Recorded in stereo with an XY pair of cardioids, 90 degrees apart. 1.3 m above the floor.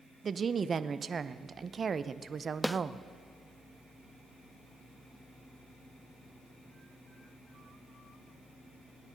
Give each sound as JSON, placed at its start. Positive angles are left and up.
{"t": 0.2, "sound": "a woman speaking", "azimuth_deg": -45, "distance_m": 0.7}
{"t": 2.6, "sound": "a snare drum", "azimuth_deg": 5, "distance_m": 0.5}